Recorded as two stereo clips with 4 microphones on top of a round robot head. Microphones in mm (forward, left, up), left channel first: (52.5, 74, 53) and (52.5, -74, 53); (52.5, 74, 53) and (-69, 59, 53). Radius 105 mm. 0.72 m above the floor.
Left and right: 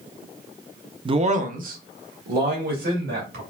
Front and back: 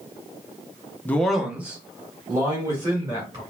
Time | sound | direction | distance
1.1 | a man speaking | 55° right | 0.5 m